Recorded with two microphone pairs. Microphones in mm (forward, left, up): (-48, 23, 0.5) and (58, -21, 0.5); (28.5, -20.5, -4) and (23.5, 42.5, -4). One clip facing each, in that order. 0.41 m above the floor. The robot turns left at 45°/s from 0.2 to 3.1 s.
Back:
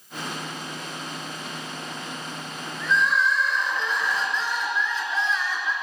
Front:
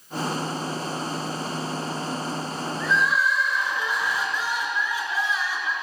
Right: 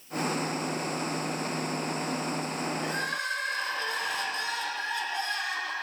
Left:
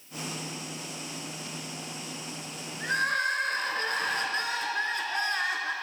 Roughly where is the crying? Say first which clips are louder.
Back 1 dB, left 4 dB; left.